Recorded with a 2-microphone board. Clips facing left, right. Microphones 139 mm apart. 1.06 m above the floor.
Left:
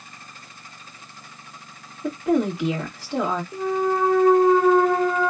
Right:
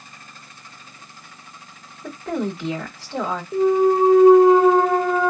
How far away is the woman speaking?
About 1.9 m.